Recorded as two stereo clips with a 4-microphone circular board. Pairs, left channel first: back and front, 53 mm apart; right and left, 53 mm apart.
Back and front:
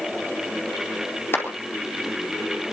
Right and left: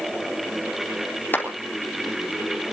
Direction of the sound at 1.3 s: 140° right.